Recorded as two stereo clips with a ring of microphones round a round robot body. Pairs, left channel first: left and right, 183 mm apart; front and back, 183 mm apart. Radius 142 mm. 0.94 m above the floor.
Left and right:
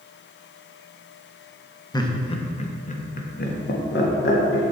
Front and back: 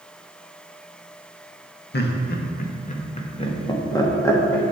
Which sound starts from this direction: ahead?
Laughter, at 1.9 s.